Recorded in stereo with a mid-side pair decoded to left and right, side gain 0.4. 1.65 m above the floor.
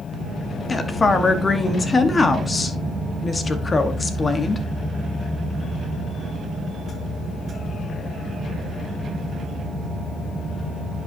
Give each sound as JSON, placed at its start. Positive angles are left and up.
{"t": 0.7, "sound": "a woman speaking", "azimuth_deg": 35, "distance_m": 1.4}